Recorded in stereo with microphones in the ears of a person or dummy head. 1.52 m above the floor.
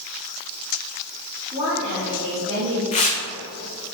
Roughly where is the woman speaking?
Centre.